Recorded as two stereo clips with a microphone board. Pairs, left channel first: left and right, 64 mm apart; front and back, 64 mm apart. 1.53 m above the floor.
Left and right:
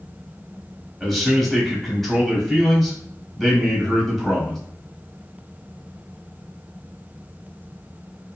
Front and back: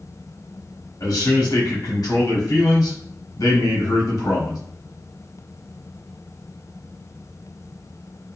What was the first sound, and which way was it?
A man speaking, straight ahead.